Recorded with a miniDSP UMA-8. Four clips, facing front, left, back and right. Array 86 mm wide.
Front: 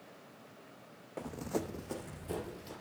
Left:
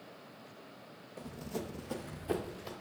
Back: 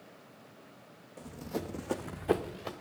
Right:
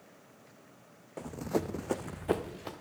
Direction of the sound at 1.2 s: 40° right.